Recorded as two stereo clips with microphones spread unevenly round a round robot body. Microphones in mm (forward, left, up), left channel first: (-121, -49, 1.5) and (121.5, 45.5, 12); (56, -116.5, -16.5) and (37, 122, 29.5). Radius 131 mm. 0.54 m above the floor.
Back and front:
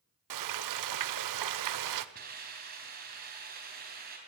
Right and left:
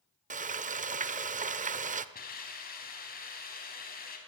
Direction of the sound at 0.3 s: 30° left.